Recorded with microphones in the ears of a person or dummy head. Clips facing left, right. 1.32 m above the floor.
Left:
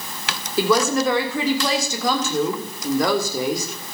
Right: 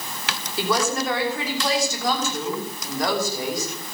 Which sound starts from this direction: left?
A woman speaking, at 0.6 s.